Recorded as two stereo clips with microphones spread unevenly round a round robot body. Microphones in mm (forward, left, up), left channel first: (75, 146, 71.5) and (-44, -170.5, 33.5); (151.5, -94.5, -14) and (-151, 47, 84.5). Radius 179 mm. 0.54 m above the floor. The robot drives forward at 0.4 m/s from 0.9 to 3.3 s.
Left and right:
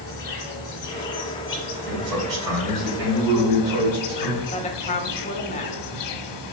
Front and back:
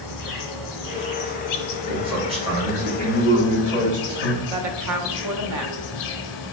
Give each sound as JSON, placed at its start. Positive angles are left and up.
{"t": 0.0, "sound": "an insect", "azimuth_deg": 15, "distance_m": 1.5}
{"t": 1.9, "sound": "a man speaking", "azimuth_deg": -120, "distance_m": 2.0}
{"t": 4.5, "sound": "a woman speaking", "azimuth_deg": 135, "distance_m": 0.7}